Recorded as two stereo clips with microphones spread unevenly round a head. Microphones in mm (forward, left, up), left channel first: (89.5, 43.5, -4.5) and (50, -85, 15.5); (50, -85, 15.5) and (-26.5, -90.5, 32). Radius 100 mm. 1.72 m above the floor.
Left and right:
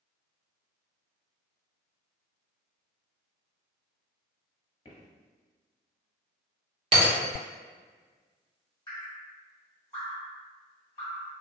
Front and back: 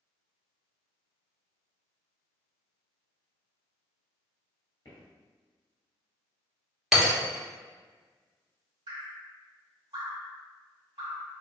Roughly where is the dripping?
Behind left.